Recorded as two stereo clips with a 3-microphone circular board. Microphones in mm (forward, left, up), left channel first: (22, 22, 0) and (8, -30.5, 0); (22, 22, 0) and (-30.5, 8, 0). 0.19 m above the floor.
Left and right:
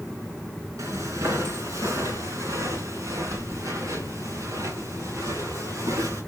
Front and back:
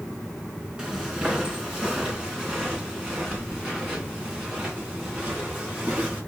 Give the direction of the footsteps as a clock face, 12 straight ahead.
3 o'clock.